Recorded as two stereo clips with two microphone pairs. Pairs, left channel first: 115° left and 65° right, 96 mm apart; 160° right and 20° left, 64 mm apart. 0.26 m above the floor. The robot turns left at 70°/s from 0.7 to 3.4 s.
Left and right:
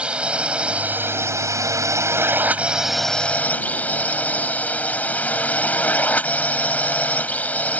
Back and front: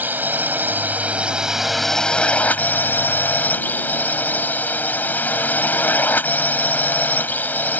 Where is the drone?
5° left; by 7.8 s 175° left.